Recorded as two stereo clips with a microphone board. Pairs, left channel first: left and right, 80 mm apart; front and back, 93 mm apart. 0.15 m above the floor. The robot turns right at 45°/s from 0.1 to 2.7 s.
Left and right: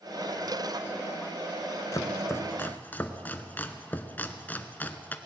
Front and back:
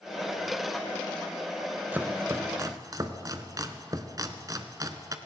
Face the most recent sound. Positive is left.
turn(degrees=150)